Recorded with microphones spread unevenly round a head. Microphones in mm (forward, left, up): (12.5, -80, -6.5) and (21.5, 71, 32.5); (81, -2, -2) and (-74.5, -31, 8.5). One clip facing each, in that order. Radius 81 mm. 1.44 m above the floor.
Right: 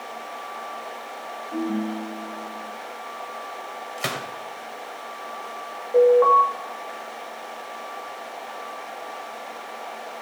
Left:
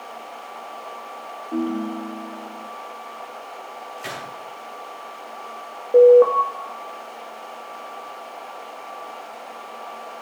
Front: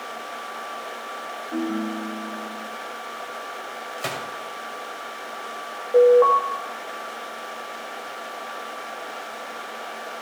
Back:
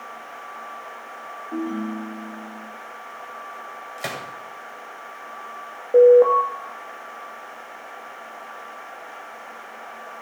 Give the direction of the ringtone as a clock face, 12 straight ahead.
8 o'clock.